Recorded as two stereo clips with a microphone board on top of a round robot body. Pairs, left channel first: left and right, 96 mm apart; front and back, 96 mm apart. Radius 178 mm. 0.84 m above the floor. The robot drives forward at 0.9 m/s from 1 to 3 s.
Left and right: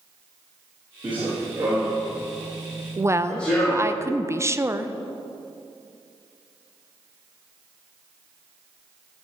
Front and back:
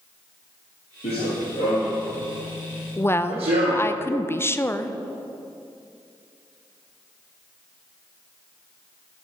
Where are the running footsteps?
15° right, 1.4 m; by 4.0 s 170° left, 2.5 m.